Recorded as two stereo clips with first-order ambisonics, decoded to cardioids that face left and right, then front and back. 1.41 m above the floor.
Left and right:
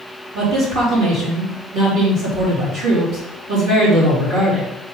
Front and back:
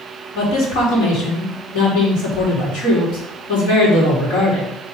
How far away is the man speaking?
About 3.5 m.